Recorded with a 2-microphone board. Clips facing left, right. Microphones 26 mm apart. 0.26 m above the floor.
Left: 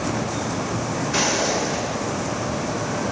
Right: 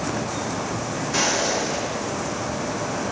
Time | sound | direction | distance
1.1 | footsteps | 20° left (ahead or behind) | 3 m